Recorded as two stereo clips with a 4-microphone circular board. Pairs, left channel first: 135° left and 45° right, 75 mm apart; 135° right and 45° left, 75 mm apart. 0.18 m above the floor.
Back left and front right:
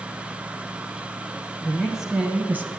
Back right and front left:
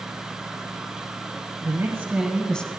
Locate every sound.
1.6 s a woman speaking: 55° left, 1.3 m; by 2.7 s 80° right, 1.1 m